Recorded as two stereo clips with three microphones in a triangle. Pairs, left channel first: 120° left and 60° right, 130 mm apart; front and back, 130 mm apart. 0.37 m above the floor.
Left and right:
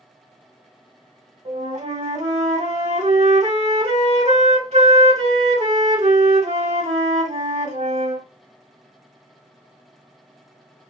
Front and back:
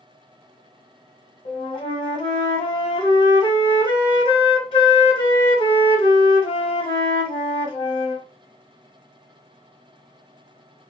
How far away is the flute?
About 1.3 m.